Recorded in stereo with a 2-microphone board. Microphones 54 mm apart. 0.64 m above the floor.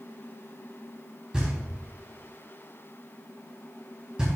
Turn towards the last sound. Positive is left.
turn(degrees=-15)  # may be behind; listen again after turning